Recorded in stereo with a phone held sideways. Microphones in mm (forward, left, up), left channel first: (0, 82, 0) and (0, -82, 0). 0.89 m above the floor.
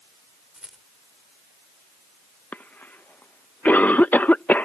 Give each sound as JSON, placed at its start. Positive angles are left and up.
{"t": 0.6, "sound": "a rattle", "side_deg": -5}
{"t": 2.5, "sound": "a cough", "side_deg": 10}